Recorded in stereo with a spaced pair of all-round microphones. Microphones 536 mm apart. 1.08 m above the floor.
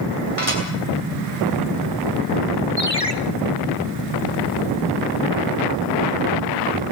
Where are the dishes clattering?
85° left, 8.5 m.